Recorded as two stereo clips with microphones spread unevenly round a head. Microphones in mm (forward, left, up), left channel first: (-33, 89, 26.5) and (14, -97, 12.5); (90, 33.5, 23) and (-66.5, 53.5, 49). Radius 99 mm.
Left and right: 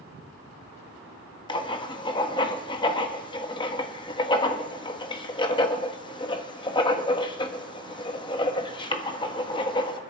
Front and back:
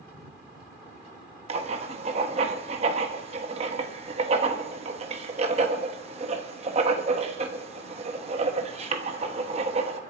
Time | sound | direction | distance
1.5 | writing | 160° left | 1.1 m